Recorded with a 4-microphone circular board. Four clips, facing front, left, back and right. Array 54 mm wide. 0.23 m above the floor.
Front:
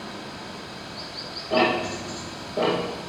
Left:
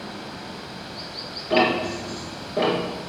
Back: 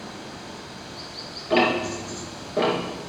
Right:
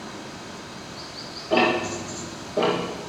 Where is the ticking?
150° left, 3 m.